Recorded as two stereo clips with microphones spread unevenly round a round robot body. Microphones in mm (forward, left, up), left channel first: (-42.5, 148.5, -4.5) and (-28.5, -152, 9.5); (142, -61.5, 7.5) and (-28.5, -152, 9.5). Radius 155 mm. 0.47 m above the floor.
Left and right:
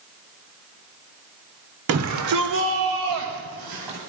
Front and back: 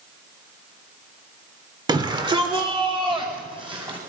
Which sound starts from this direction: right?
A shout, at 1.9 s.